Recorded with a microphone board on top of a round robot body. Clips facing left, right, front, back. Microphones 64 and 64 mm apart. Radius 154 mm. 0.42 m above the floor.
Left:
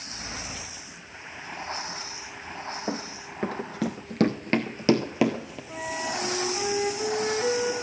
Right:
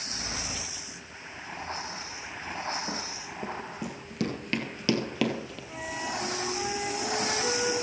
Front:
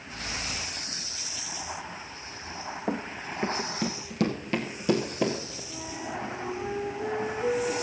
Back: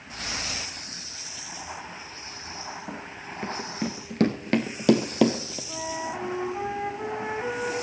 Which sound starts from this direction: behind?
A flute, at 5.7 s.